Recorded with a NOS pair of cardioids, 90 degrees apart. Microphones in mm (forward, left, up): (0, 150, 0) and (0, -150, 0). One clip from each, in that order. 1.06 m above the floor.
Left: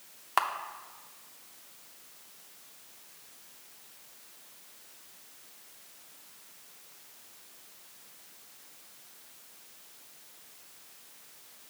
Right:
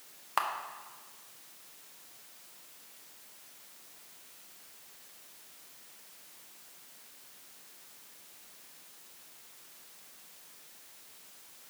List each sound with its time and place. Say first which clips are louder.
0.4 s a camera shutter: left 3 dB; 15° left, 0.7 m